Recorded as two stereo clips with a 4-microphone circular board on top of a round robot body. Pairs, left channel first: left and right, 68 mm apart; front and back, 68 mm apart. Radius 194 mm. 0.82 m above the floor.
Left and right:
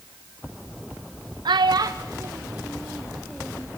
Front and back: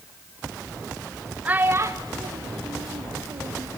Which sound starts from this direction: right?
A child speaking, at 1.4 s.